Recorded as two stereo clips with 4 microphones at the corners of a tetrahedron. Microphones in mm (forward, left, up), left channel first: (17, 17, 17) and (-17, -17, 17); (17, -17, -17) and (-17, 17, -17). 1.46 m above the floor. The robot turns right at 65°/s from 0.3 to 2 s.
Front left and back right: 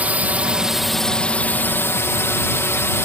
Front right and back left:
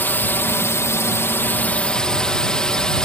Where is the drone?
85° right; by 3.0 s 25° left.